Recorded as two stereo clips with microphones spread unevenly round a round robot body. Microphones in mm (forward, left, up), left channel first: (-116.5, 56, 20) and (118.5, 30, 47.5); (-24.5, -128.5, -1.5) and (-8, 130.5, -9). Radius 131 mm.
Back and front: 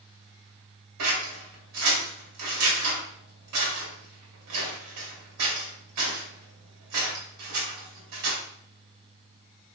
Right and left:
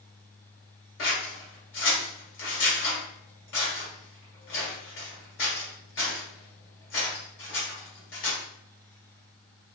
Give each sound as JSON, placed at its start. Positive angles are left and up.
{"t": 1.0, "sound": "scissors", "azimuth_deg": -45, "distance_m": 2.0}